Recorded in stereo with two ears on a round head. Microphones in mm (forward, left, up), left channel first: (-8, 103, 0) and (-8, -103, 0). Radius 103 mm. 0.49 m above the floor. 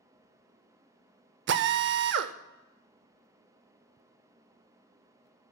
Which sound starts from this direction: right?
A drill, at 1.5 s.